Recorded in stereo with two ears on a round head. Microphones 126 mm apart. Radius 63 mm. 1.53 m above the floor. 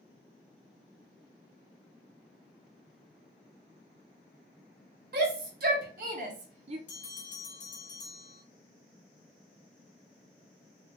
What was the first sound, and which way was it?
A shout, 70° right (ahead or behind).